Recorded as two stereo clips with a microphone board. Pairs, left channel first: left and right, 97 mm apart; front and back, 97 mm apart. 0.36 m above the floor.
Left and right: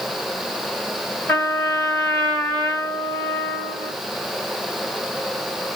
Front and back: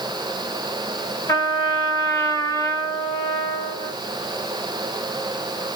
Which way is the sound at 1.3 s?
30° left.